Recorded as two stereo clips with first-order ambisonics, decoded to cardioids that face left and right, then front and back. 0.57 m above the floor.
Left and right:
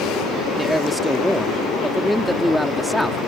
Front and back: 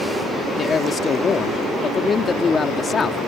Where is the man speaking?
Straight ahead.